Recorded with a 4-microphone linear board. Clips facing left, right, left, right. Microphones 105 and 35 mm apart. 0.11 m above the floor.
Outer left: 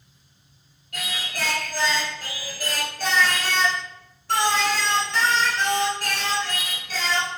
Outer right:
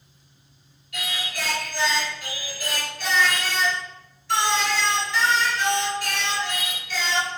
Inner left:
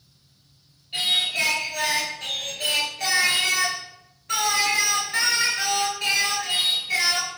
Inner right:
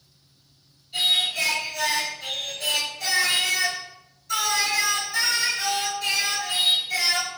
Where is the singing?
50° left (ahead or behind), 0.7 m.